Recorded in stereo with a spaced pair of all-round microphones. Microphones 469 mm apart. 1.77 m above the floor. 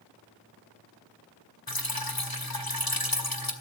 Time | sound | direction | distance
1.7 | dripping | 50° left (ahead or behind) | 2 m